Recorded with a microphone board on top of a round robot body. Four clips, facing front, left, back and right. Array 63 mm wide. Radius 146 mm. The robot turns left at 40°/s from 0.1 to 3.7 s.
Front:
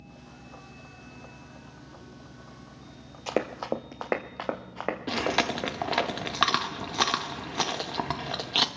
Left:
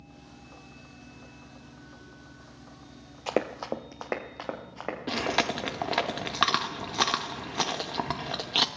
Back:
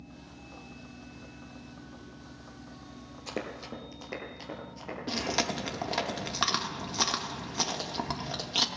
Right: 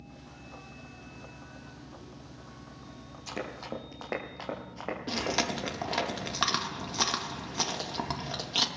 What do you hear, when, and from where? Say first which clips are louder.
3.3 s running footsteps: left 9 dB, front 9 dB; 65° left, 0.5 m; by 6.1 s 5° left, 4 m
5.1 s chewing: left 4 dB, front 3 dB; 40° left, 1.4 m